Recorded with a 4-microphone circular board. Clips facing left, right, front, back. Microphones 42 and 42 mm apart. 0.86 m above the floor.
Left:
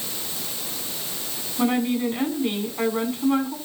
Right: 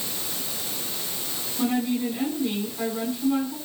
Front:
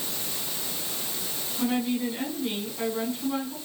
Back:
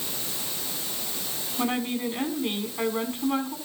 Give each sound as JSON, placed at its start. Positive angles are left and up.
{"t": 1.6, "sound": "a woman speaking", "azimuth_deg": 125, "distance_m": 7.0}